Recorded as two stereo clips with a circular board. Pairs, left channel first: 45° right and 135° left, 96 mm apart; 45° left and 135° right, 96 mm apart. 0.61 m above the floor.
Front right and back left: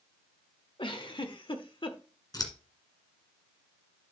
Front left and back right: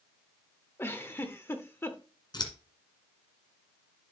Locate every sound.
0.8 s a giggle: 20° right, 0.9 m
2.3 s scissors: 5° left, 1.8 m